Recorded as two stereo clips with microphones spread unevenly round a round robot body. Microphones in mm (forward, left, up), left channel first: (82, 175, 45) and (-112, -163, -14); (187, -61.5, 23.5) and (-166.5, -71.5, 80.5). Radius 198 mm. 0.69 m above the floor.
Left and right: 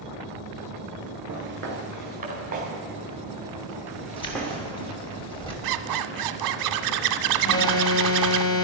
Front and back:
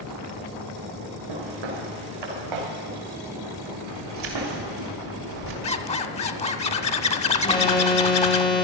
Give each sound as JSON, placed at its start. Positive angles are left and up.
{"t": 1.3, "sound": "footsteps", "azimuth_deg": 180, "distance_m": 5.0}
{"t": 4.2, "sound": "keys jangling", "azimuth_deg": 140, "distance_m": 2.5}
{"t": 5.6, "sound": "a zipper", "azimuth_deg": -75, "distance_m": 0.7}
{"t": 7.4, "sound": "an alarm", "azimuth_deg": 30, "distance_m": 1.4}